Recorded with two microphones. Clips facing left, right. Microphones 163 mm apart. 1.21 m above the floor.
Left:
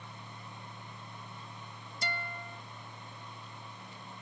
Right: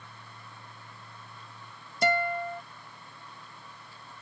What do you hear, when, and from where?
2.0 s a guitar: 65° right (ahead or behind)